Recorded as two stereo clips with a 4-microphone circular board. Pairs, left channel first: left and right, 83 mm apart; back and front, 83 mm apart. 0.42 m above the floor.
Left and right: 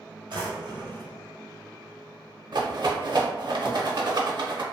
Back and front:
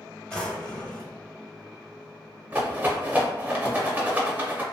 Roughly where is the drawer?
Right.